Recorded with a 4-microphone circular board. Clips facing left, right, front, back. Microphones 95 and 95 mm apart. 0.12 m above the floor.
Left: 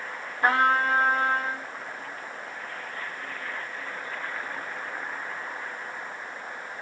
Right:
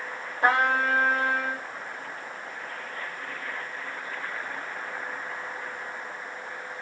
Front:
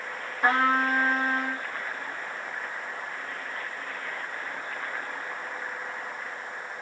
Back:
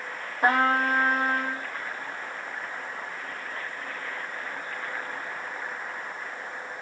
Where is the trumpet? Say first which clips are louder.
Left 1 dB, back 1 dB; 145° right, 1.3 m.